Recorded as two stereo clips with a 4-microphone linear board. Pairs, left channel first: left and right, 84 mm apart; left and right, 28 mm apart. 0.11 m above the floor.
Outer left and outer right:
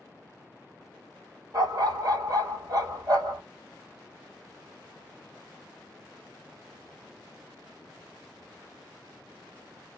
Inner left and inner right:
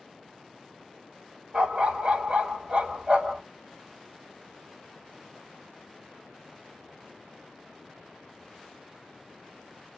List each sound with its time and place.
1.5 s a dog barking: 50° right (ahead or behind), 1.1 m